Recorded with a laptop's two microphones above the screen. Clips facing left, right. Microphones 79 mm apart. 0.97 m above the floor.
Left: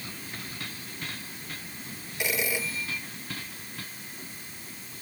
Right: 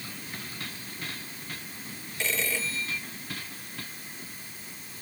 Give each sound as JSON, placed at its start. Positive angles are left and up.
{"t": 2.2, "sound": "a phone ringing", "side_deg": 15}